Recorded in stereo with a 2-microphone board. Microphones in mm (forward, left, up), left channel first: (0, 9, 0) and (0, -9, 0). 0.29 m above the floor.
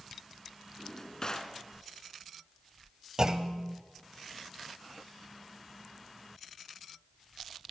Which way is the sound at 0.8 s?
25° left (ahead or behind).